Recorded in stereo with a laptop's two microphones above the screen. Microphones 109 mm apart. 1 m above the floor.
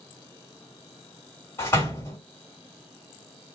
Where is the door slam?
20° left (ahead or behind), 2 m.